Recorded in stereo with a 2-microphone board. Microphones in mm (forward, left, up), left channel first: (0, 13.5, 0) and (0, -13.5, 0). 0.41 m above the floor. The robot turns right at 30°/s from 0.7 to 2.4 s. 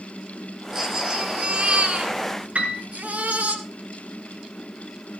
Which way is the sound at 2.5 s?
70° right (ahead or behind).